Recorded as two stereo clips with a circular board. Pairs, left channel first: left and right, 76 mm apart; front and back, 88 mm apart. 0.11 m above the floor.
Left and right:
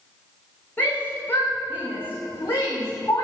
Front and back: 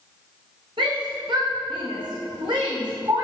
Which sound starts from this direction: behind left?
A shout, at 0.8 s.